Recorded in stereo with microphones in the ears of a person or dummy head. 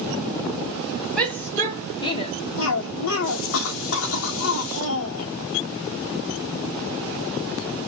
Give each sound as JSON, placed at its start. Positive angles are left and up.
{"t": 1.2, "sound": "a shout", "side_deg": 10, "distance_m": 1.4}
{"t": 2.6, "sound": "a cough", "side_deg": 70, "distance_m": 1.0}